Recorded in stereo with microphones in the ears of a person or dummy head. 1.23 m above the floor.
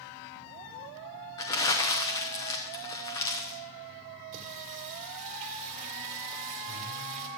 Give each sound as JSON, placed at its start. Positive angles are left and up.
{"t": 1.4, "sound": "crumpling", "side_deg": 15, "distance_m": 0.6}
{"t": 4.3, "sound": "singing", "side_deg": -40, "distance_m": 2.0}